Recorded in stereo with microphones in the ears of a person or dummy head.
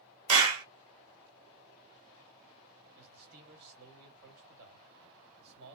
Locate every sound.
0.3 s a clap: 85° right, 1.0 m
3.0 s a man speaking: 55° right (ahead or behind), 1.8 m